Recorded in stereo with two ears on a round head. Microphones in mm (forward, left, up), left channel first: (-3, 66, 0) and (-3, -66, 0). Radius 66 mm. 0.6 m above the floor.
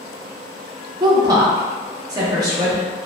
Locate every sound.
1.0 s a woman speaking: 25° right (ahead or behind), 0.6 m